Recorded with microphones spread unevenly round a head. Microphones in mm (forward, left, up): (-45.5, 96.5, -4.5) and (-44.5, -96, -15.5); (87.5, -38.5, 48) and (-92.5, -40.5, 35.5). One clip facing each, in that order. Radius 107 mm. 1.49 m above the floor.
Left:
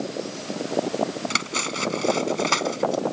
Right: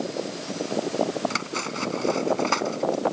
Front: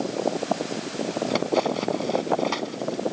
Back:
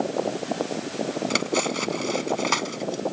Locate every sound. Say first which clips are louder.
1.3 s cutlery clinking: even, front 3 dB; 135° left